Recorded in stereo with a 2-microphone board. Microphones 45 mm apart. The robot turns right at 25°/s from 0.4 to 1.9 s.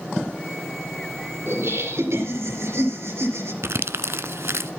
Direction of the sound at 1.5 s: 65° right (ahead or behind).